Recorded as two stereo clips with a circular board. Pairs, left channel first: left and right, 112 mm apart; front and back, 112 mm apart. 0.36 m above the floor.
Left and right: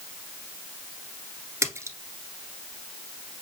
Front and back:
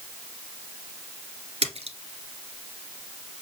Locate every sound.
1.6 s a splash: 155° right, 1.3 m